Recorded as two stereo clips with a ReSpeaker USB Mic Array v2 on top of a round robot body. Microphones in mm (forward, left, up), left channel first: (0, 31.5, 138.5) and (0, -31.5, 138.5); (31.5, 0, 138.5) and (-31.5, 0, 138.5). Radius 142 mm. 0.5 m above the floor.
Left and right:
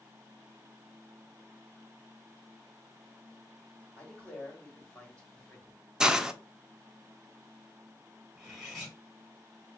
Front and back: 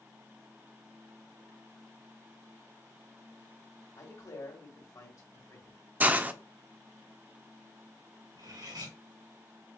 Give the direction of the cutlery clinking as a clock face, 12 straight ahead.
6 o'clock.